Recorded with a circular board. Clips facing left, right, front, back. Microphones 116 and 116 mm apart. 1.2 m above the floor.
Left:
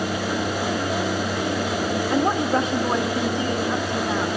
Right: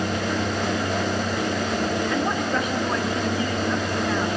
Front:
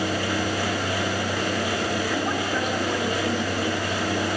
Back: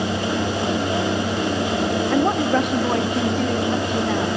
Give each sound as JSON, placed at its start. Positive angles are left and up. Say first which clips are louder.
{"t": 2.1, "sound": "a woman speaking", "louder": "left 3 dB, back 7 dB", "azimuth_deg": 145, "distance_m": 1.3}